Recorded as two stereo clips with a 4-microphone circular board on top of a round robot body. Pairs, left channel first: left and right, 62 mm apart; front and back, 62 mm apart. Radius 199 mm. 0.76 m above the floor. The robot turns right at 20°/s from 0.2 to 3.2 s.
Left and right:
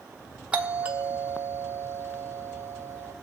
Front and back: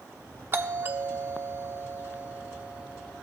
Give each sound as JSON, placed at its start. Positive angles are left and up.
{"t": 0.5, "sound": "a doorbell", "azimuth_deg": -155, "distance_m": 1.1}